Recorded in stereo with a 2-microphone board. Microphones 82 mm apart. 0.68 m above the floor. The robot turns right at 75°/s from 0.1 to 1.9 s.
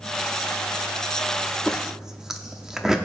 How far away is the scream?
No scream in this recording.